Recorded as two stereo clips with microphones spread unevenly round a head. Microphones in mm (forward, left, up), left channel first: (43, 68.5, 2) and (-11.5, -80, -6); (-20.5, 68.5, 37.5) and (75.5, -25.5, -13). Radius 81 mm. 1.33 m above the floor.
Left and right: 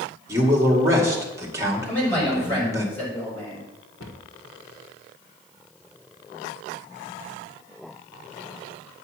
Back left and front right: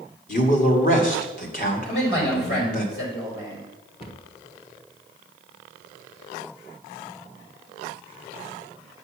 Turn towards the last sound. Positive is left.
turn(degrees=80)